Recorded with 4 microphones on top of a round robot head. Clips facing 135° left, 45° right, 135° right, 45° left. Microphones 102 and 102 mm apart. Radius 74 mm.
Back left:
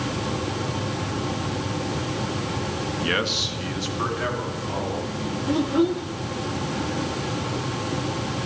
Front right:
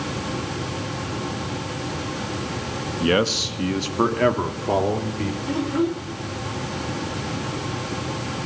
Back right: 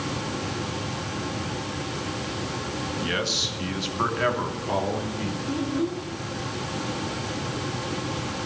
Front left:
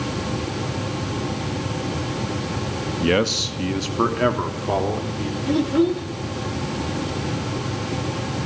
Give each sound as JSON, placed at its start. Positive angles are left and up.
{"t": 3.0, "sound": "a man speaking", "azimuth_deg": 15, "distance_m": 1.5}
{"t": 5.5, "sound": "a child speaking", "azimuth_deg": 60, "distance_m": 1.7}